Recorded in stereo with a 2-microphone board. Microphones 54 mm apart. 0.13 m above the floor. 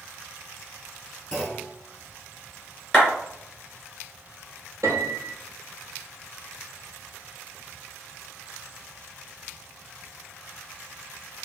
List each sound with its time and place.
1.3 s a clunk: 10° left (ahead or behind), 1.3 m
2.9 s a clap: 15° left (ahead or behind), 1.9 m
4.8 s a piano: 70° right (ahead or behind), 1.1 m